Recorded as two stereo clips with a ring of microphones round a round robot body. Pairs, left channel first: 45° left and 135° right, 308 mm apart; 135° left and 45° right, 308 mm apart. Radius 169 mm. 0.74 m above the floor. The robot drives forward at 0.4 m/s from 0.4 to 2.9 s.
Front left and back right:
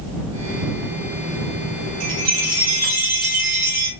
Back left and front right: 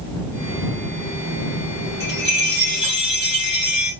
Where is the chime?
170° right, 3 m.